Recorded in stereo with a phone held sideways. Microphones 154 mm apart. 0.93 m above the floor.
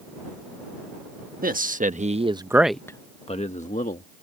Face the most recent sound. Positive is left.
turn(degrees=60)  # may be behind; listen again after turning